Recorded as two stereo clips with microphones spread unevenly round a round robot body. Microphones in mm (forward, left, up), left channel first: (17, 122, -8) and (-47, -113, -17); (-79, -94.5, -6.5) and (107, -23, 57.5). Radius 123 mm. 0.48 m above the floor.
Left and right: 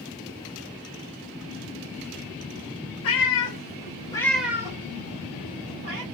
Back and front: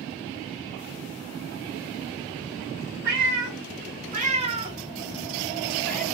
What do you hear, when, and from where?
3.0 s a cat meowing: 45° left, 0.9 m; by 6.0 s 65° right, 1.2 m